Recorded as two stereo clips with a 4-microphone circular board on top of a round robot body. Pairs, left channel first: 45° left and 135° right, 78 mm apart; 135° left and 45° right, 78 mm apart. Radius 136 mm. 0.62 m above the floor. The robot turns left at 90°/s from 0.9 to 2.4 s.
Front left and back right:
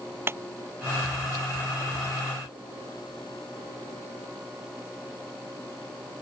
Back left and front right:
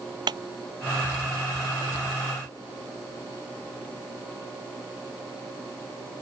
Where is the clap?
75° right.